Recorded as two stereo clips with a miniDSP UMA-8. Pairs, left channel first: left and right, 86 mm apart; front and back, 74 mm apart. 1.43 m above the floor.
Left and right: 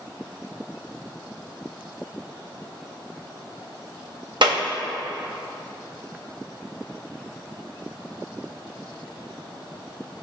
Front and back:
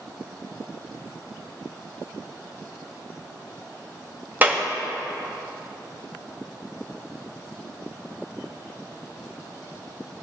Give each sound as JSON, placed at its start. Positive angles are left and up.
{"t": 4.4, "sound": "a clap", "azimuth_deg": -115, "distance_m": 1.1}